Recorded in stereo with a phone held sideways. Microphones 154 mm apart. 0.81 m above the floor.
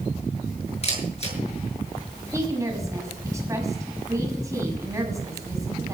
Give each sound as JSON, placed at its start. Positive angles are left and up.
{"t": 0.8, "sound": "a camera shutter", "side_deg": 40, "distance_m": 6.5}
{"t": 2.3, "sound": "a woman speaking", "side_deg": -20, "distance_m": 6.0}